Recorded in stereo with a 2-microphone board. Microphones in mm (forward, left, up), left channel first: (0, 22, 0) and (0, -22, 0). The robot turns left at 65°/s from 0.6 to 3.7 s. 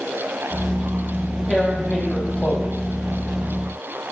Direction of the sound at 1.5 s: 170° left.